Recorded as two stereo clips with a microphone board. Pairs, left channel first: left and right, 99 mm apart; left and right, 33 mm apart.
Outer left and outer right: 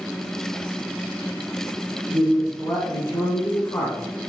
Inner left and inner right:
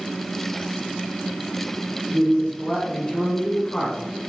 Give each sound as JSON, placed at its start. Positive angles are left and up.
{"t": 2.1, "sound": "a man speaking", "side_deg": 25, "distance_m": 1.5}